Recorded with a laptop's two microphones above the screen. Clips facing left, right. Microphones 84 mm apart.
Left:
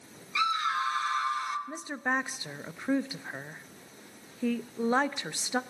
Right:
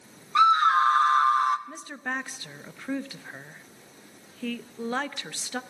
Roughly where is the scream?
Right.